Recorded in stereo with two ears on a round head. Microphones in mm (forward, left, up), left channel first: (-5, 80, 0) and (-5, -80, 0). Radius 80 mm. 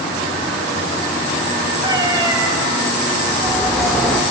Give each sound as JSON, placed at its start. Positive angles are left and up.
{"t": 1.8, "sound": "a cat meowing", "side_deg": -25, "distance_m": 3.0}
{"t": 3.3, "sound": "a bird", "side_deg": 0, "distance_m": 1.9}